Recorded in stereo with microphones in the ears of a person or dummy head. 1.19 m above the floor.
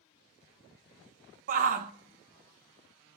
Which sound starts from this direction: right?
A shout, at 1.5 s.